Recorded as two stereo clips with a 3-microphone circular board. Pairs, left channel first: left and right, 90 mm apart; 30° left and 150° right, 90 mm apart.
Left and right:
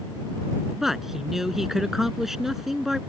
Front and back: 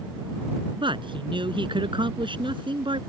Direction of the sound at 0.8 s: 175° right.